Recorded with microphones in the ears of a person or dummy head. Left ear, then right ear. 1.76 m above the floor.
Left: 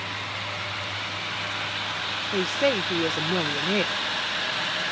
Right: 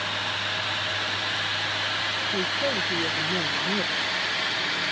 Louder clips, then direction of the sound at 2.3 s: Left 2 dB; 45° left (ahead or behind).